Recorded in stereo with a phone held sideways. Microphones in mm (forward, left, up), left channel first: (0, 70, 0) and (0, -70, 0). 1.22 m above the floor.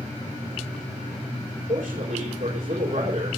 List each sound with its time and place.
1.7 s a man speaking: 70° right (ahead or behind), 4 m